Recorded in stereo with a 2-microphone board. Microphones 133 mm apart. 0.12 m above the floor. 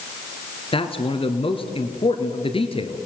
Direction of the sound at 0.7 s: 40° left (ahead or behind).